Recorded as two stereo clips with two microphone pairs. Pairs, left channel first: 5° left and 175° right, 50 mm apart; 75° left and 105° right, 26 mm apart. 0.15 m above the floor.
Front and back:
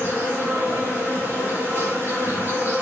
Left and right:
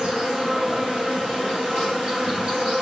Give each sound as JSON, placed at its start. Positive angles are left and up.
{"t": 0.0, "sound": "an insect", "azimuth_deg": -135, "distance_m": 3.5}